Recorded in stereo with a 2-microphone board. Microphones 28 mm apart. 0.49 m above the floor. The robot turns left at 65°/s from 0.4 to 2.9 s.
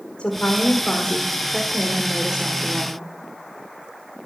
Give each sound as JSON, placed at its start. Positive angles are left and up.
{"t": 0.2, "sound": "a woman speaking", "azimuth_deg": 90, "distance_m": 1.4}